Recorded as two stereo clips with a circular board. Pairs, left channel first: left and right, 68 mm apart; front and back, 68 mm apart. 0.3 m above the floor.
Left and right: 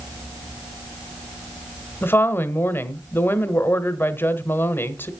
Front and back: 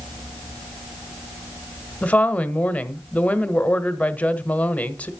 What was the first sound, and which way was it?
A woman speaking, 60° left.